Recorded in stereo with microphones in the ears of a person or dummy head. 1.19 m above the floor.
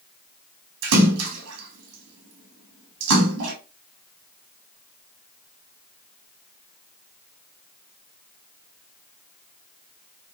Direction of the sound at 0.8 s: 75° right (ahead or behind).